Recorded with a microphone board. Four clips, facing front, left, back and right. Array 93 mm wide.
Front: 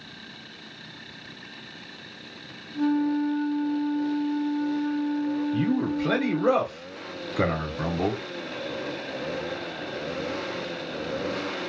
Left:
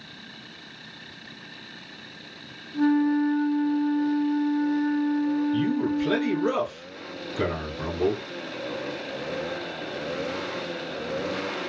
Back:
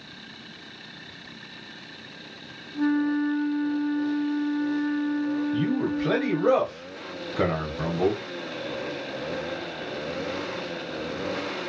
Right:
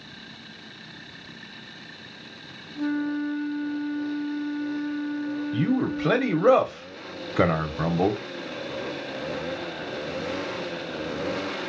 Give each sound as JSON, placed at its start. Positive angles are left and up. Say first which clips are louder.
{"t": 2.7, "sound": "a flute", "louder": "left 6 dB, even", "azimuth_deg": 90, "distance_m": 1.3}
{"t": 5.5, "sound": "a man speaking", "louder": "even, even", "azimuth_deg": -85, "distance_m": 0.9}